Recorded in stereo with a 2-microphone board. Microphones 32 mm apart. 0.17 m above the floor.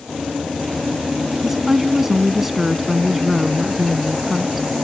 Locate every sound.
1.4 s a woman speaking: 10° right (ahead or behind)